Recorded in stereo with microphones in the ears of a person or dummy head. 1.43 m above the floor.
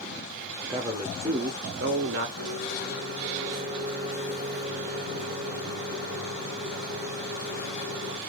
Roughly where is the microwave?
Right.